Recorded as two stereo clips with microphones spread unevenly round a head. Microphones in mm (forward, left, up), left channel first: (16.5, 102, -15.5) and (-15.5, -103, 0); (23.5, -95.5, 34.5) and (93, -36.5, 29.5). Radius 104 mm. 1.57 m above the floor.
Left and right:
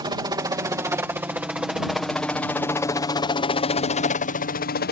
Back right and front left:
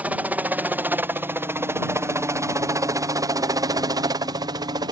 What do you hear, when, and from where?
0.0 s a helicopter: 30° right; by 4.9 s 65° left